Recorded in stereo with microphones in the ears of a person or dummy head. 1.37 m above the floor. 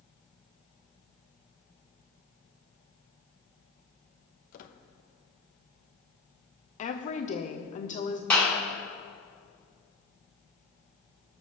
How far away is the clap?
About 4 m.